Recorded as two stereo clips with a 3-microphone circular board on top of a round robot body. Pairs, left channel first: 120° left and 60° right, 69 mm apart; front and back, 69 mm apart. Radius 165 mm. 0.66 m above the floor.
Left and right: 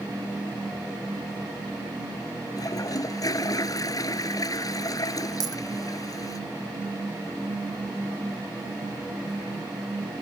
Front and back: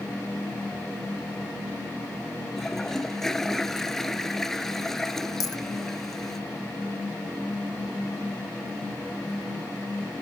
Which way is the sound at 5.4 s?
35° right.